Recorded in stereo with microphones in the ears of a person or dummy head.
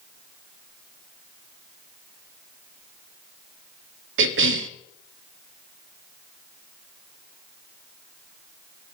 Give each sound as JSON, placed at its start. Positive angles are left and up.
{"t": 4.2, "sound": "a cough", "side_deg": -60, "distance_m": 0.6}